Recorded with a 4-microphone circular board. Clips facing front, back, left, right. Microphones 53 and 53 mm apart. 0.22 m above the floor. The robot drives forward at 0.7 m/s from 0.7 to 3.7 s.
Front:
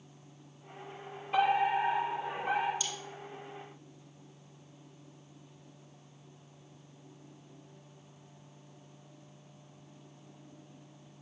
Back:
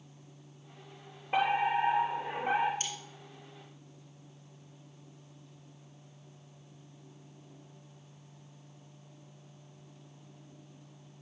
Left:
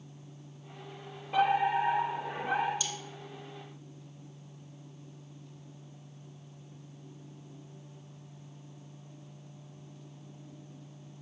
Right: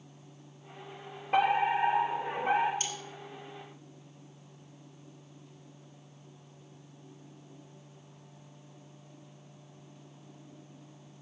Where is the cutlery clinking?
135° right, 3.5 m.